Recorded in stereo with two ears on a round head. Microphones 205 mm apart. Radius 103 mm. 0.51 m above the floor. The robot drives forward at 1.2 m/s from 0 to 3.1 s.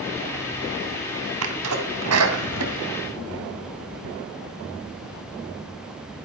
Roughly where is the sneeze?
Right.